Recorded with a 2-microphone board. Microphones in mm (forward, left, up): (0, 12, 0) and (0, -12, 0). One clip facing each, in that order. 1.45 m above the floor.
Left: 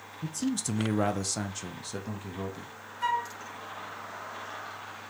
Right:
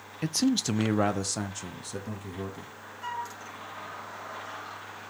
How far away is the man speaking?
About 0.5 m.